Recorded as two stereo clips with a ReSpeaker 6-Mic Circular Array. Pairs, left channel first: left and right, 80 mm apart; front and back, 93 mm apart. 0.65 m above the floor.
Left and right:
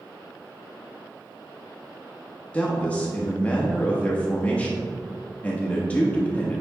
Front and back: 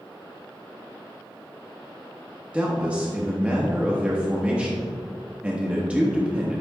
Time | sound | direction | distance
2.5 | a man speaking | 130° left | 1.1 m